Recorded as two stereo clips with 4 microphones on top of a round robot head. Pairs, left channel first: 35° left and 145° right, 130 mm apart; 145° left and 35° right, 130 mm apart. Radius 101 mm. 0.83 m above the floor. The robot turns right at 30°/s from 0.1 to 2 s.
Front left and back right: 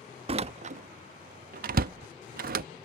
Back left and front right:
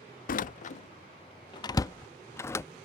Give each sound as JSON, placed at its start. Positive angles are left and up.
{"t": 0.3, "sound": "a door slam", "azimuth_deg": 165}